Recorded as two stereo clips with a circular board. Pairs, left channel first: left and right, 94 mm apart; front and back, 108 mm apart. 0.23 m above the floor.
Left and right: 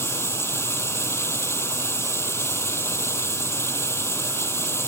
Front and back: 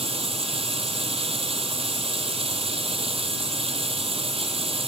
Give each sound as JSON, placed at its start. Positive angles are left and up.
{"t": 0.0, "sound": "running water", "azimuth_deg": 150}